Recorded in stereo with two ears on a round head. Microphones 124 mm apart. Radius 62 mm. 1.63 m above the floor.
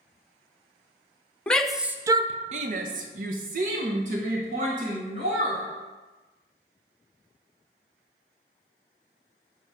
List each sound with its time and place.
1.5 s a shout: 5° left (ahead or behind), 0.7 m; by 5.6 s 55° right (ahead or behind), 2.5 m